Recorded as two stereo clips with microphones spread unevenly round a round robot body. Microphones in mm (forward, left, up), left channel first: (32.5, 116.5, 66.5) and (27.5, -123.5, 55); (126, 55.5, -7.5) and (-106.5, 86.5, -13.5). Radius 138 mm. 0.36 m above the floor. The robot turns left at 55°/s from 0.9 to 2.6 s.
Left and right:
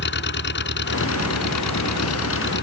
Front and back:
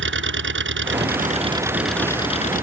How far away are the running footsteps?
I don't hear running footsteps.